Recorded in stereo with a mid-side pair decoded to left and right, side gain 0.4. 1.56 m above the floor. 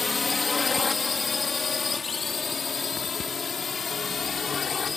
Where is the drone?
25° left; by 5.0 s 45° left.